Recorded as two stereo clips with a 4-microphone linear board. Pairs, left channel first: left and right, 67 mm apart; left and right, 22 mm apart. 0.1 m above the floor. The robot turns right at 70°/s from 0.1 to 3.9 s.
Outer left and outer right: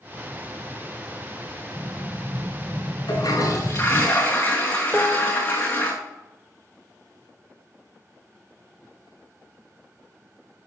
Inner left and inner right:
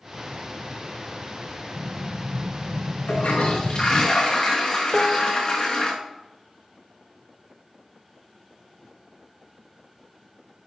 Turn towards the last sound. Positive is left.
turn(degrees=0)  # may be behind; listen again after turning